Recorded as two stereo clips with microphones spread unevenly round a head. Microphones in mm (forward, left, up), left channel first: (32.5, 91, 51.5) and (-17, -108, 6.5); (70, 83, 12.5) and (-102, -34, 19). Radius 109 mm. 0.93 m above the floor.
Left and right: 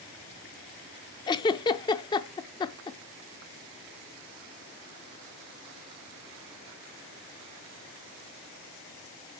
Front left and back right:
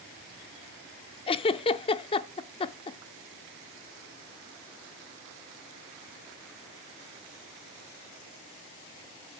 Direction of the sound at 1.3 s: 75° left.